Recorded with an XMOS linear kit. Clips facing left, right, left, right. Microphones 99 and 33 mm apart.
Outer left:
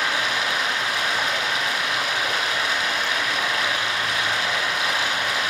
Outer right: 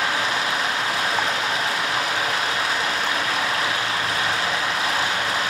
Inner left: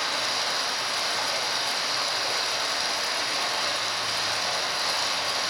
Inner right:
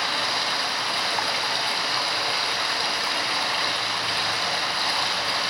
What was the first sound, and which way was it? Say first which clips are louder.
Running water: outer right 1 dB, inner right 3 dB; 40° right (ahead or behind).